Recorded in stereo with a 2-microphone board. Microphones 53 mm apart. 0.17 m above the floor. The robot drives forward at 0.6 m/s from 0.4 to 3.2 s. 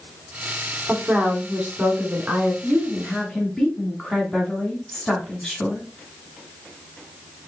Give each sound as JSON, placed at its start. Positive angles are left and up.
{"t": 0.9, "sound": "a woman speaking", "side_deg": -20, "distance_m": 1.2}
{"t": 2.6, "sound": "a woman speaking", "side_deg": 10, "distance_m": 1.3}